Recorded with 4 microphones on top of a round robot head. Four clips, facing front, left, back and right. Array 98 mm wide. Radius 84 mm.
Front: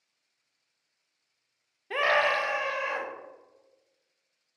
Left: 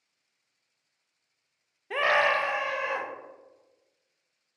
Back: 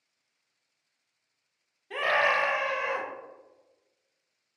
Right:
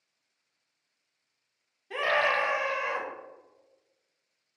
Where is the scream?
45° left, 0.7 m; by 3.1 s 155° right, 1.3 m.